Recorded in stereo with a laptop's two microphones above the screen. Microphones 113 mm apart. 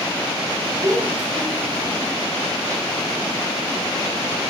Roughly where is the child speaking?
Right.